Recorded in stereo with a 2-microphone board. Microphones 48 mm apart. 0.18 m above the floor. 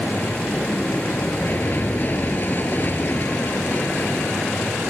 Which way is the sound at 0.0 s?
40° left (ahead or behind).